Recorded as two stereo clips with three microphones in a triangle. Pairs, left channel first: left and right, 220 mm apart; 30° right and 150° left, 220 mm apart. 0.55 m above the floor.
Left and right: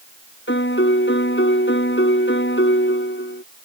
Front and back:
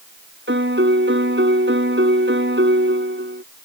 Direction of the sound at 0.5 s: 120° left.